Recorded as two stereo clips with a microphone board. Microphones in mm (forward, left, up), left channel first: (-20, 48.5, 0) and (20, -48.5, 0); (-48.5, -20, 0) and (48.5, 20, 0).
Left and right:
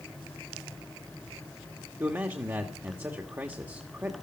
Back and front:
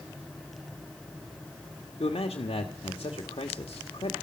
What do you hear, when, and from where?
2.0 s a man speaking: 135° right, 1.6 m